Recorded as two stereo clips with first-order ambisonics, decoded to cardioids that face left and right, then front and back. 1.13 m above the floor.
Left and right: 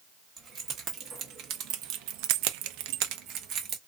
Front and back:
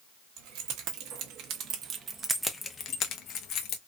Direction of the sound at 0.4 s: 155° right.